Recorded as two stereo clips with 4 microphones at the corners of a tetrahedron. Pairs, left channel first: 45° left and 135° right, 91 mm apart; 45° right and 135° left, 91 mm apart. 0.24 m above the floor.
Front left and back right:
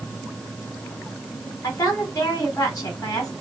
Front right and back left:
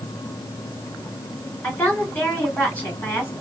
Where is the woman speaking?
15° left, 2 m.